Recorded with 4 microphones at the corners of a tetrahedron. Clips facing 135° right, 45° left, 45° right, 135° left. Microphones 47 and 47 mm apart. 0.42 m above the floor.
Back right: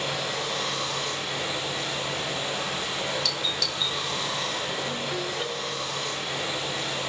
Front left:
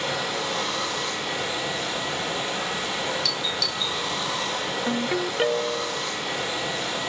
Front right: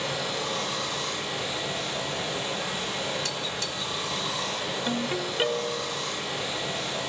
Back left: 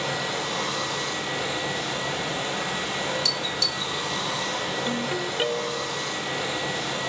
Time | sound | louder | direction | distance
0.0 | running water | front left 2 dB, back left 2 dB | 135° left | 8.5 m
3.2 | a doorbell | front left 2 dB, back left 3 dB | 55° right | 1.5 m
4.9 | a ringtone | front left 5 dB, back left 2 dB | 40° left | 0.7 m